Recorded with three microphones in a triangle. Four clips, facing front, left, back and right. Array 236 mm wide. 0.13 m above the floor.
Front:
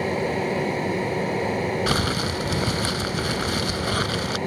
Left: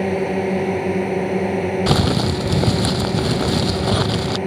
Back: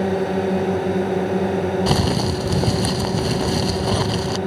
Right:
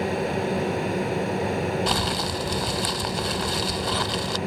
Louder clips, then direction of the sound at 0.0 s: Left 6 dB, back 4 dB; 130° left.